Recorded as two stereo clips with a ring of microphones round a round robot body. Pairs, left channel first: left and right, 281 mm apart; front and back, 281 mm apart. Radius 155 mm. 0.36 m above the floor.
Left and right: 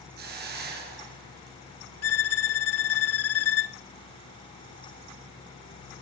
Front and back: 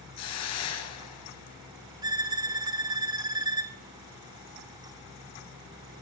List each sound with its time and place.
0.2 s a hiss: 30° right, 4 m
2.0 s a violin: 105° left, 1.1 m